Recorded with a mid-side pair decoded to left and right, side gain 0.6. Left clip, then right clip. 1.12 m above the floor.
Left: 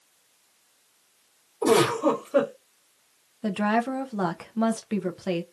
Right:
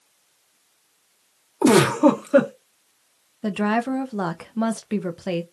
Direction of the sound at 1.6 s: 65° right.